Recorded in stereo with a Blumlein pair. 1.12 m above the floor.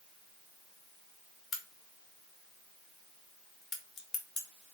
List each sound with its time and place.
1.5 s a crack: 30° left, 0.9 m